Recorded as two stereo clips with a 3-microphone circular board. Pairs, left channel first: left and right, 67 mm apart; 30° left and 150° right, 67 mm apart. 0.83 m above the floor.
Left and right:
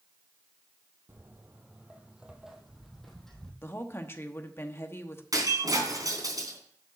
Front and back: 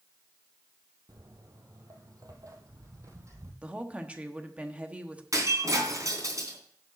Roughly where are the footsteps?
Behind right.